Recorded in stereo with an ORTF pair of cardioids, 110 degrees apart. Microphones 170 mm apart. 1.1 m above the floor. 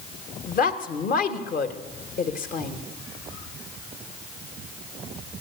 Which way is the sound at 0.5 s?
55° left.